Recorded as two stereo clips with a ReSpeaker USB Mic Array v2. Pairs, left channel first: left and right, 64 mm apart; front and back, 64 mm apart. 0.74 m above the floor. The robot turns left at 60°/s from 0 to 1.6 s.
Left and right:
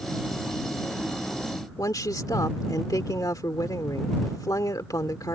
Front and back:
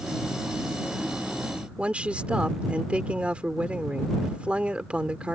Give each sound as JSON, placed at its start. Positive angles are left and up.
{"t": 1.8, "sound": "a woman speaking", "azimuth_deg": 110}